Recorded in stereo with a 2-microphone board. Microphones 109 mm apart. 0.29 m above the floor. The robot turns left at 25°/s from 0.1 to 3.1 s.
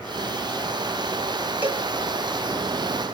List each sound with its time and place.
1.6 s a cowbell: 15° right (ahead or behind), 3 m; by 1.9 s 10° right (ahead or behind), 3 m